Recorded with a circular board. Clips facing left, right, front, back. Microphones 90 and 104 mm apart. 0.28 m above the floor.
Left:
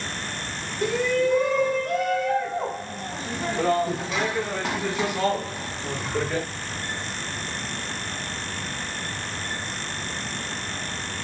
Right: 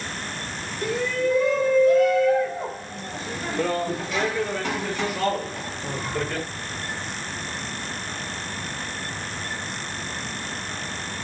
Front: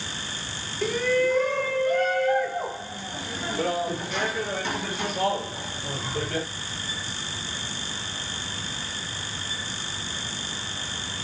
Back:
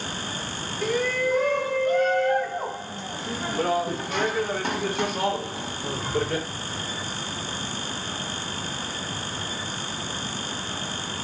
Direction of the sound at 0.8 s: 90° left.